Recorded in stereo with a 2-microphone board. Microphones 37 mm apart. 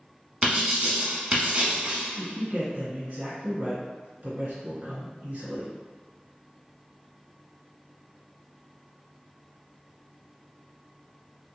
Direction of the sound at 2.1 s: 50° right (ahead or behind).